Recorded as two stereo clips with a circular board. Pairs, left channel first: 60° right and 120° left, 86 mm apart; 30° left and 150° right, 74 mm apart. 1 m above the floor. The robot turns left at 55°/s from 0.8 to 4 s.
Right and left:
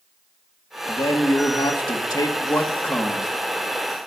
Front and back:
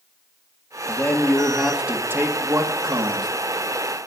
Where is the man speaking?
25° right, 1.9 m; by 3.3 s 160° right, 1.9 m.